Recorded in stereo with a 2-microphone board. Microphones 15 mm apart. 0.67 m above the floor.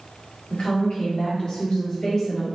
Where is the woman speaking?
70° left (ahead or behind), 1.8 m; by 2.5 s 35° left (ahead or behind), 1.3 m.